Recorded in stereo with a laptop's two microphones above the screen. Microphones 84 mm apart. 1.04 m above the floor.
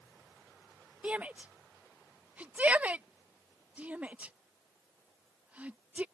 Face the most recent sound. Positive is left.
turn(degrees=-15)  # may be behind; listen again after turning